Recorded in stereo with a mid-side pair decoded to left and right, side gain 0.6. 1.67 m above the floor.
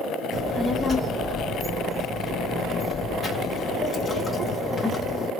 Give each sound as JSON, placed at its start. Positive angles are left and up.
{"t": 0.3, "sound": "a child speaking", "azimuth_deg": 30, "distance_m": 1.4}